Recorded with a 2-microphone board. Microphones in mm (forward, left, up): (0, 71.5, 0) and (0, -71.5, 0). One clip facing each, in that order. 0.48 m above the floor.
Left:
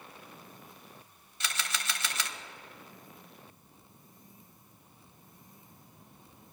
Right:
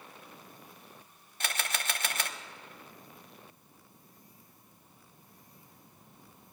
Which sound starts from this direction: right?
A camera shutter, at 1.4 s.